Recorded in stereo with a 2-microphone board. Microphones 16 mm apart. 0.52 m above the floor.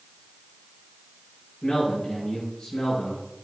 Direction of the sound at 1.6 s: 85° left.